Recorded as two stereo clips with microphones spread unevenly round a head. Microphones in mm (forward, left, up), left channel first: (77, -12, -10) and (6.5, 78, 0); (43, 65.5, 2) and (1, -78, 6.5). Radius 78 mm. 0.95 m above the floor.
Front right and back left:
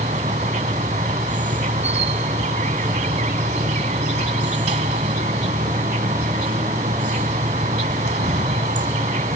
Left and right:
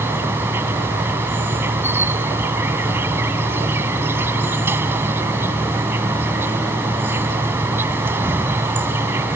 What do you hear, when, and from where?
0.0 s an insect: 175° left